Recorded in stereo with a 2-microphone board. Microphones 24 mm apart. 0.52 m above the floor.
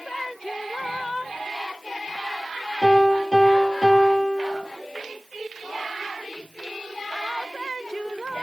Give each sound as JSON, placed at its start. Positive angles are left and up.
{"t": 2.8, "sound": "a piano", "side_deg": 10, "distance_m": 2.0}